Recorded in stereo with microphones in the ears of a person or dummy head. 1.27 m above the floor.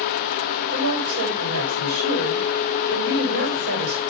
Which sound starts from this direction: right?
A woman speaking, at 0.7 s.